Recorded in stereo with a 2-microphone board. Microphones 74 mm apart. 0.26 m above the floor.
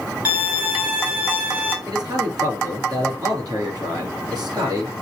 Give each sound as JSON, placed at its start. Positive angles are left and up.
{"t": 0.2, "sound": "a violin", "side_deg": -20, "distance_m": 1.9}
{"t": 1.9, "sound": "a man speaking", "side_deg": -65, "distance_m": 4.5}